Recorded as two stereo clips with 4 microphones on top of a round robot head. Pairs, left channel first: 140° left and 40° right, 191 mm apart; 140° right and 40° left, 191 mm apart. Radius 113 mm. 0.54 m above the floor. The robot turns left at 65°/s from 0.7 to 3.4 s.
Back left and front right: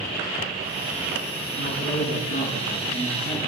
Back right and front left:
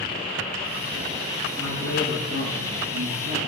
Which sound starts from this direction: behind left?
A man speaking, at 1.6 s.